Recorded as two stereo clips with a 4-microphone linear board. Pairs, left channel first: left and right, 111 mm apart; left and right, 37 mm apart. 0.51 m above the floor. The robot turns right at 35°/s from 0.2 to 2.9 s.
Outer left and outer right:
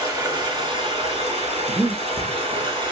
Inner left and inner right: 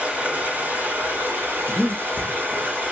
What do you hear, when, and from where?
0.0 s running water: 140° right, 2.5 m; by 2.9 s 45° right, 2.5 m
1.7 s breathing: 40° right (ahead or behind), 0.5 m; by 2.0 s 35° right (ahead or behind), 0.5 m